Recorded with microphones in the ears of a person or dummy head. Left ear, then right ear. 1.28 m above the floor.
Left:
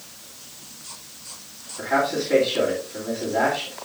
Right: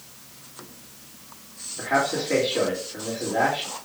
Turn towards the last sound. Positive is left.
turn(degrees=-15)  # may be behind; listen again after turning